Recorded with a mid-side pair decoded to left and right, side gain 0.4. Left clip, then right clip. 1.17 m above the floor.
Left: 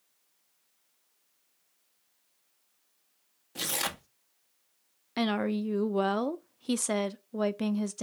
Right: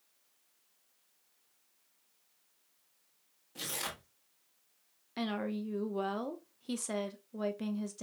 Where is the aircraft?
No aircraft in this recording.